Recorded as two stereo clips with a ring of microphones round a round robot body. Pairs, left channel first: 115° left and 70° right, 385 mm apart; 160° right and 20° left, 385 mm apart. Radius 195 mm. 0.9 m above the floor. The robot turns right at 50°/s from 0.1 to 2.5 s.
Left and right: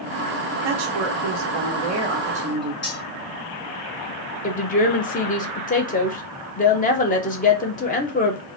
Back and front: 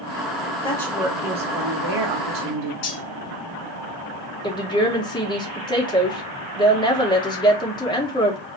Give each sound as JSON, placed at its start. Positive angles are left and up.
{"t": 0.6, "sound": "a woman speaking", "azimuth_deg": -80, "distance_m": 0.8}
{"t": 2.8, "sound": "cutlery clinking", "azimuth_deg": 175, "distance_m": 2.5}
{"t": 4.4, "sound": "a woman speaking", "azimuth_deg": 140, "distance_m": 0.9}